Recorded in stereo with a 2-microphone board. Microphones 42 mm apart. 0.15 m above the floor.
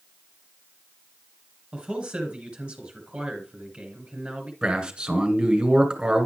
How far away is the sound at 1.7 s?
About 2.5 m.